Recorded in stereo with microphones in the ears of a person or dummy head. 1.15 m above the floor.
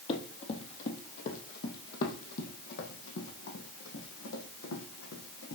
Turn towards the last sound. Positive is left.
turn(degrees=75)  # may be behind; listen again after turning